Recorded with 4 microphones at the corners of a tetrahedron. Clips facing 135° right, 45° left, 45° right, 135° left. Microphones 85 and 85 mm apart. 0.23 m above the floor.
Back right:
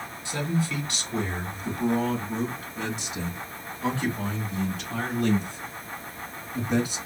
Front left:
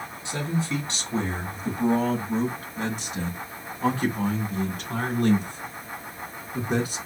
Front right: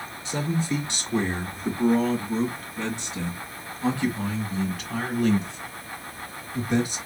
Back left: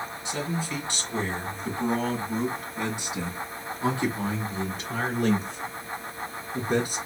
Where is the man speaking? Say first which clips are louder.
Even, front right 5 dB; 10° right, 1.7 m; by 7.0 s 90° left, 3.5 m.